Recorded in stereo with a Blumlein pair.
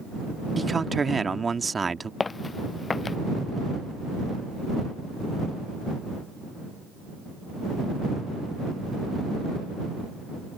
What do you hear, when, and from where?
0.6 s a man speaking: 10° right
2.2 s footsteps: 15° left